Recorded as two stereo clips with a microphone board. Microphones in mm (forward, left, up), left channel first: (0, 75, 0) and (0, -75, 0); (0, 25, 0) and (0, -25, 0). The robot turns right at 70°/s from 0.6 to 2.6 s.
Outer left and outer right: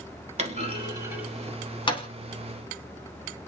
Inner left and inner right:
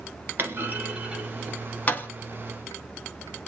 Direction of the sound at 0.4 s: 50° right (ahead or behind).